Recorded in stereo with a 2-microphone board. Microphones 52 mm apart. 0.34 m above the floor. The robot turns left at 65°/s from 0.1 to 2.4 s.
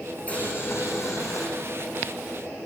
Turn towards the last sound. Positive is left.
turn(degrees=15)